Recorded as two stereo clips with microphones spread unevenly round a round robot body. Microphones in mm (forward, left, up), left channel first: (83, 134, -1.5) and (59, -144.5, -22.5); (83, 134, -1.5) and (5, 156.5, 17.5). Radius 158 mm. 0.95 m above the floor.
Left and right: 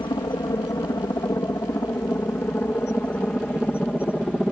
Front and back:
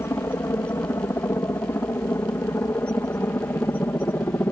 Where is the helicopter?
15° left; by 4.5 s 5° right.